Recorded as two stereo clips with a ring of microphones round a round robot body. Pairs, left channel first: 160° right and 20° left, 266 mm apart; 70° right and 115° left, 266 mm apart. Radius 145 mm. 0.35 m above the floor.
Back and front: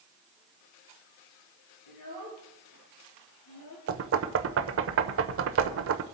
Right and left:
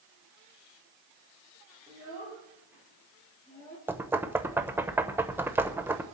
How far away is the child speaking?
About 6.5 m.